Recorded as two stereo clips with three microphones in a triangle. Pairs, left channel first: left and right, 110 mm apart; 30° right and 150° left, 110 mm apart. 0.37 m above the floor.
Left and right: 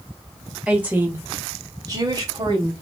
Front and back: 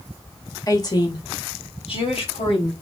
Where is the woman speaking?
15° right, 0.9 m; by 2.7 s 40° right, 1.9 m.